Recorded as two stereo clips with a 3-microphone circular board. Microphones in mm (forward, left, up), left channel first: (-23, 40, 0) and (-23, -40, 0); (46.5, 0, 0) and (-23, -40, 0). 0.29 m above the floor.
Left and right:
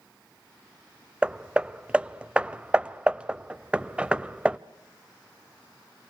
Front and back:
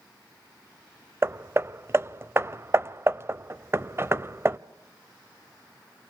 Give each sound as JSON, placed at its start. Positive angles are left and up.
{"t": 1.2, "sound": "hammering", "azimuth_deg": -155, "distance_m": 0.6}